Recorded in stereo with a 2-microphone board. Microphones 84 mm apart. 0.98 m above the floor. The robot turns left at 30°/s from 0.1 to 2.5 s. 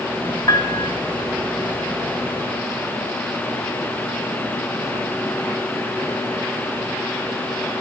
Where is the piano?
45° left (ahead or behind), 1.1 m; by 0.9 s 50° left (ahead or behind), 1.1 m.